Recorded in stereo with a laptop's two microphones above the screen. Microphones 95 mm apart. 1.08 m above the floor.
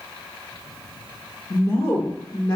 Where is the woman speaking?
45° left (ahead or behind), 0.9 m.